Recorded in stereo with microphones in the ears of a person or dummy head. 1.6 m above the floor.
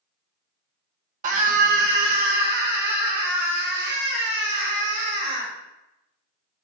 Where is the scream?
45° right (ahead or behind), 1.4 m; by 5.5 s 70° right (ahead or behind), 3.5 m.